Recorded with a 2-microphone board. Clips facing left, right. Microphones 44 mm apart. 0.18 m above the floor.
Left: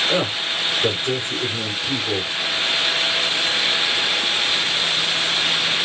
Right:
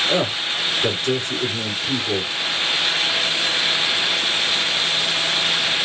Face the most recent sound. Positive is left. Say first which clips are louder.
# even
turn(degrees=20)  # may be behind; listen again after turning